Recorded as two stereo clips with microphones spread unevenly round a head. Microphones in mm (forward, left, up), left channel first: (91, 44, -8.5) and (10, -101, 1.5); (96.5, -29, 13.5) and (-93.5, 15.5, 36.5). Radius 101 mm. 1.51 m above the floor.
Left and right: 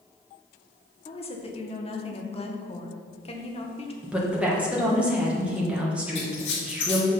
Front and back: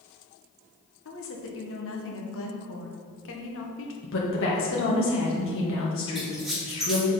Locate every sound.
1.1 s a woman speaking: 5° left, 1.4 m
4.0 s a woman speaking: 35° right, 1.5 m
6.2 s a squeak: 80° left, 1.8 m